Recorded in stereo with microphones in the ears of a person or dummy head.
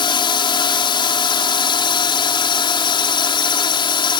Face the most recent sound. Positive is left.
turn(degrees=20)  # may be behind; listen again after turning